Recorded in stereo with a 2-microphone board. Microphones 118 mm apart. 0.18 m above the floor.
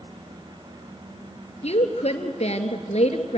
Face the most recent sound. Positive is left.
turn(degrees=65)  # may be behind; listen again after turning